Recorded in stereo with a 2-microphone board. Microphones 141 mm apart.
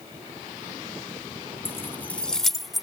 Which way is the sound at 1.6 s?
15° left (ahead or behind).